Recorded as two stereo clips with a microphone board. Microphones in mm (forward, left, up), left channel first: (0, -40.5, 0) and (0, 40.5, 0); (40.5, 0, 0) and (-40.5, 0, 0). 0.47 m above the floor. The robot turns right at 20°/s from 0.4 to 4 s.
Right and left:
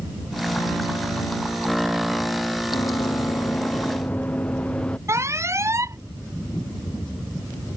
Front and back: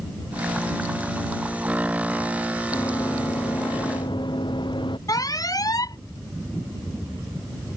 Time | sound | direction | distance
2.7 | running footsteps | 55° right | ?
5.1 | an alarm | 40° left | ?